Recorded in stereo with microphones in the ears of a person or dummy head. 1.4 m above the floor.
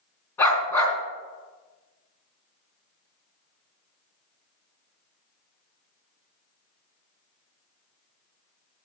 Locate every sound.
0.4 s a dog barking: 15° left (ahead or behind), 3.5 m